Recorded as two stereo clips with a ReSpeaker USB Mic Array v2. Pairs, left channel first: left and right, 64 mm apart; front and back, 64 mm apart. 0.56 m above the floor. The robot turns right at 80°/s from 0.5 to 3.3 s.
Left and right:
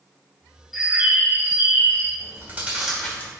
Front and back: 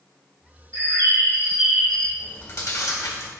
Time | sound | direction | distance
0.7 | a bird | straight behind | 1.7 m
2.2 | chewing | 60° right | 1.7 m